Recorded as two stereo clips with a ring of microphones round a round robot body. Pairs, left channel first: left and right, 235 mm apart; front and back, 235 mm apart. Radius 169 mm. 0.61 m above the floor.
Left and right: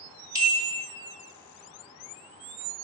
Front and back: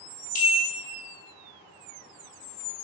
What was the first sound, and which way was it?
A bell, 10° right.